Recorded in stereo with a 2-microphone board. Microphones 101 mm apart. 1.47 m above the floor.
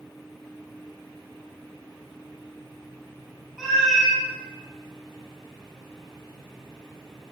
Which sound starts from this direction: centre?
A cat meowing, at 3.6 s.